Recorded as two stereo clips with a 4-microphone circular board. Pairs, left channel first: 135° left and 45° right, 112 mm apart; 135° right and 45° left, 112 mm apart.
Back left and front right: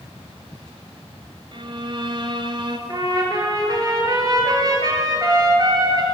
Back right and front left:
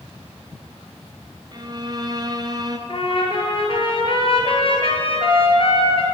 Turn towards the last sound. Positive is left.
turn(degrees=-100)